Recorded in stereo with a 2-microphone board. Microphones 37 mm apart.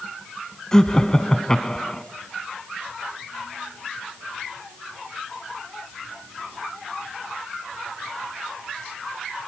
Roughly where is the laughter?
Centre.